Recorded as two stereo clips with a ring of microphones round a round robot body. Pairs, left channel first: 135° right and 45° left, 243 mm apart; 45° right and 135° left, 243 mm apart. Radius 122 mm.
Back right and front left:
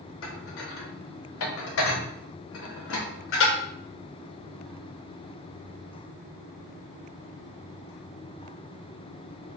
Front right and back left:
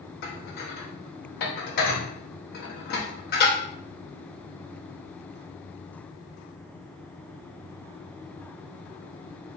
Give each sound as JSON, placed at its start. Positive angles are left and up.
{"t": 0.2, "sound": "dishes clattering", "azimuth_deg": -95, "distance_m": 0.8}